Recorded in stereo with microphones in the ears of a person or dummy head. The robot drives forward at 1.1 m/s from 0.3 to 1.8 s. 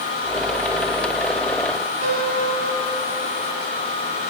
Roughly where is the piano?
Right.